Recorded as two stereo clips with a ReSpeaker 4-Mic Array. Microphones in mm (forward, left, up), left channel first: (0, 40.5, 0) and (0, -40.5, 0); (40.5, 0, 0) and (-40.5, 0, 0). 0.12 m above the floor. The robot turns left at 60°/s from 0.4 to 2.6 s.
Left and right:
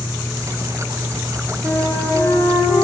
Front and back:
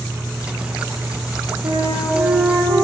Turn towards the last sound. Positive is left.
turn(degrees=115)